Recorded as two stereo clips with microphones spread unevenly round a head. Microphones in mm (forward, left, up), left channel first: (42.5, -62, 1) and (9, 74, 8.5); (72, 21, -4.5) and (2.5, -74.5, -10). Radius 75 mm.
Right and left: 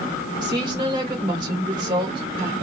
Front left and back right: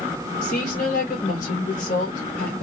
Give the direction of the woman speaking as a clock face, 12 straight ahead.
10 o'clock.